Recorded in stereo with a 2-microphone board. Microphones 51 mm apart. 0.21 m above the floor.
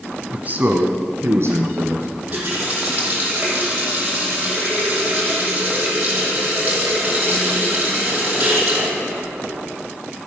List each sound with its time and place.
0.3 s a man speaking: 25° right (ahead or behind), 1.2 m; by 2.1 s 65° right (ahead or behind), 2.5 m
2.2 s a running tap: 35° right (ahead or behind), 5.5 m